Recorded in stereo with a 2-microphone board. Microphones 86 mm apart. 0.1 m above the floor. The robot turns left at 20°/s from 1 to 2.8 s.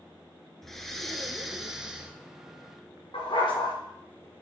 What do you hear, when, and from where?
0.6 s breathing: 5° left (ahead or behind), 0.8 m; by 2.1 s 10° right (ahead or behind), 0.8 m
3.1 s a dog barking: 85° left, 3.5 m